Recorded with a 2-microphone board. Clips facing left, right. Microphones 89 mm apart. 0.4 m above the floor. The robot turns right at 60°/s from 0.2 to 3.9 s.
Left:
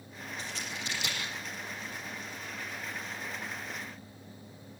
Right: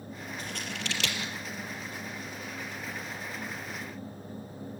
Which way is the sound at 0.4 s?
45° right (ahead or behind).